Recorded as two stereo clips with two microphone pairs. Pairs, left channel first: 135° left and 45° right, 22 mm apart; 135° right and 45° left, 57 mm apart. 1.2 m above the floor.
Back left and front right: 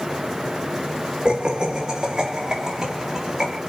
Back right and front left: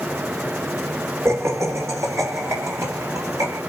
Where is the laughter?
5° left, 1.9 m; by 3.6 s 20° left, 5.5 m.